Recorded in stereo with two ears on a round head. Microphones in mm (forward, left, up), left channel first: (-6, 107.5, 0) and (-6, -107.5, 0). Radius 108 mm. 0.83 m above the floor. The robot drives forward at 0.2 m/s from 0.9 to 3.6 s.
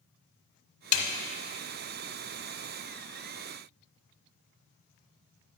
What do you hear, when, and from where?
0.9 s a snare drum: 65° left (ahead or behind), 0.9 m